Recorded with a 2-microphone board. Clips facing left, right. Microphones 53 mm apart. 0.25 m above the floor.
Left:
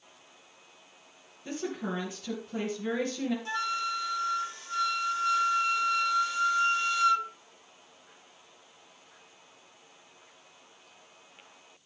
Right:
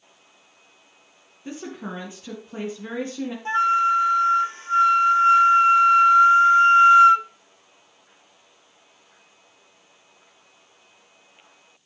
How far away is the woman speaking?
About 3 m.